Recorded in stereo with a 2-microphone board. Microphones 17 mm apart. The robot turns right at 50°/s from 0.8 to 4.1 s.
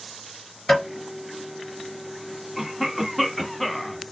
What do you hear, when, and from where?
0.7 s tapping: 20° left (ahead or behind), 2.5 m; by 0.9 s 25° left (ahead or behind), 2.5 m
2.6 s a cough: 15° right (ahead or behind), 1.0 m; by 4.0 s 10° left (ahead or behind), 1.0 m